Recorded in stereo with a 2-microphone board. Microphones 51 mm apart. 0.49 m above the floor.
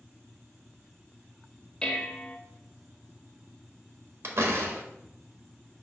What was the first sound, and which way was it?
Dishes clattering, 20° left (ahead or behind).